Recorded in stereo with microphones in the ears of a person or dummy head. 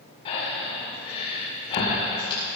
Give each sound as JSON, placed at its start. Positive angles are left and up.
{"t": 0.2, "sound": "breathing", "side_deg": 30, "distance_m": 5.0}